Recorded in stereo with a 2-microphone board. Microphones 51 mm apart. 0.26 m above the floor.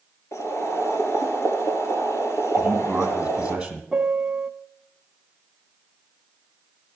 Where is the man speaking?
15° right (ahead or behind), 3 m.